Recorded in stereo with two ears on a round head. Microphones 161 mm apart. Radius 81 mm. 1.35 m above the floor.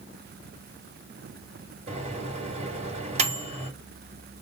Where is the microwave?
35° right (ahead or behind), 2 m.